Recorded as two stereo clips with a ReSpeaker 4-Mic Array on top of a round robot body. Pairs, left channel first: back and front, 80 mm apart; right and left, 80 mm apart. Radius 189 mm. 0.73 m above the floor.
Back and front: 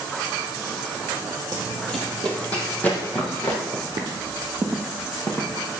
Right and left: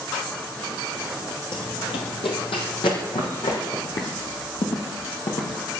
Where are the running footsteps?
60° right, 0.8 m; by 3.6 s 110° right, 3 m.